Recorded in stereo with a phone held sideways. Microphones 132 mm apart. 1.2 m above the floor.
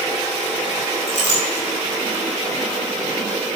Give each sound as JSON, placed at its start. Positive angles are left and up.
{"t": 1.1, "sound": "a clink", "side_deg": 80, "distance_m": 4.0}